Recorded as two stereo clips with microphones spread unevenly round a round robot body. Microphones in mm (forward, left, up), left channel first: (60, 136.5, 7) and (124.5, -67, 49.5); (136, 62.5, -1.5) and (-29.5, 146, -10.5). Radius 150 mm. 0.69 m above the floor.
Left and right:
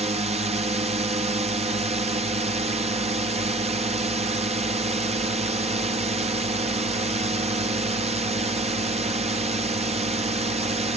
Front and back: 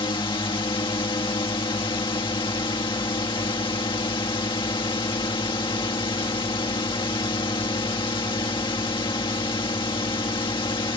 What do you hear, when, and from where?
0.0 s a drone: 35° right